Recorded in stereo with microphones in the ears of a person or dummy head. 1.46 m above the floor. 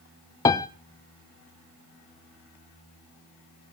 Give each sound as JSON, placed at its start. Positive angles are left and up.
{"t": 0.5, "sound": "a piano", "side_deg": 20, "distance_m": 0.5}